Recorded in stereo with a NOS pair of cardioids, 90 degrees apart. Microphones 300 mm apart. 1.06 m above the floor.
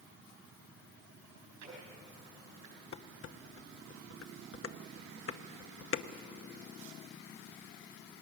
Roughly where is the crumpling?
I don't hear crumpling.